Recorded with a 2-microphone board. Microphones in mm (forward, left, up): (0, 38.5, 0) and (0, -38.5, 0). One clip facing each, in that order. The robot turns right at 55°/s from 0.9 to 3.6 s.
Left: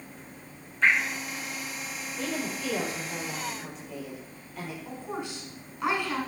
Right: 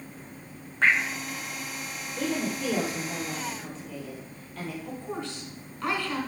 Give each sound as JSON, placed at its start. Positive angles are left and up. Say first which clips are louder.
{"t": 0.8, "sound": "dripping", "louder": "right 1 dB", "side_deg": -60, "distance_m": 4.0}
{"t": 2.2, "sound": "a woman speaking", "louder": "right 4 dB", "azimuth_deg": -70, "distance_m": 5.0}
{"t": 4.8, "sound": "a woman speaking", "louder": "right 1 dB", "side_deg": 15, "distance_m": 3.0}